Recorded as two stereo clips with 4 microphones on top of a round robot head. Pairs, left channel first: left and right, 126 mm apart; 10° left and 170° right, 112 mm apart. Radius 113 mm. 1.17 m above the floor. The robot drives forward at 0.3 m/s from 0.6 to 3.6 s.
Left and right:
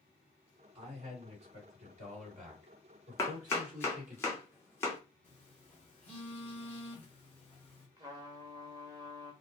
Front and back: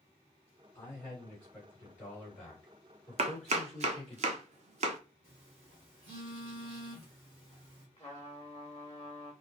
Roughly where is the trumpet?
Ahead right.